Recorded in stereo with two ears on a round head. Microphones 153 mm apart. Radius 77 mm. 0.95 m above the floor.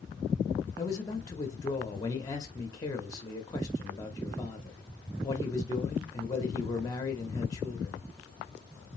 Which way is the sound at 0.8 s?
20° left (ahead or behind).